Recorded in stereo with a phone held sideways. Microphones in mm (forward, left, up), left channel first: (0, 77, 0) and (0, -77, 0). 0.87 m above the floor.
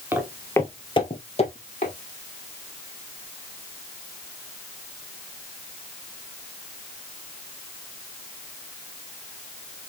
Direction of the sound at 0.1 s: 15° right (ahead or behind).